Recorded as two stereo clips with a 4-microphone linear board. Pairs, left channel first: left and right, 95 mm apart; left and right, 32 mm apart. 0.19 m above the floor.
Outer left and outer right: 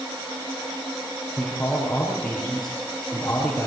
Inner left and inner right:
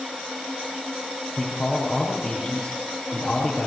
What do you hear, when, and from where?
1.4 s a man speaking: 15° left (ahead or behind), 5.5 m